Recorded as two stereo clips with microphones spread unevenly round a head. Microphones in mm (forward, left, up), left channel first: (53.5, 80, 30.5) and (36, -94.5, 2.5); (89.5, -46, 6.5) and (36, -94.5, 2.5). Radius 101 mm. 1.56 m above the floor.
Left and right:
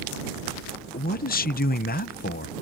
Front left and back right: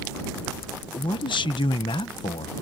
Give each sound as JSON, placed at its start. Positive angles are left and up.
{"t": 0.9, "sound": "a man speaking", "azimuth_deg": 45}